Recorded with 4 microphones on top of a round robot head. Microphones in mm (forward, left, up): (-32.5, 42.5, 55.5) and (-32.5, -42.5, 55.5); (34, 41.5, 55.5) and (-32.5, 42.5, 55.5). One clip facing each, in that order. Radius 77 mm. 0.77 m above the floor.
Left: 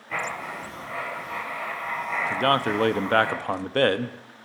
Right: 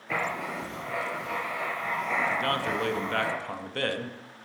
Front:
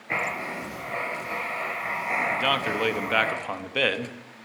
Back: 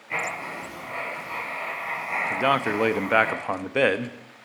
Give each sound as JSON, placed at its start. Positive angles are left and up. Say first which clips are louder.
{"t": 0.1, "sound": "writing", "louder": "even, front 1 dB", "azimuth_deg": -50, "distance_m": 4.0}
{"t": 2.3, "sound": "a man speaking", "louder": "left 5 dB, back 2 dB", "azimuth_deg": 115, "distance_m": 0.8}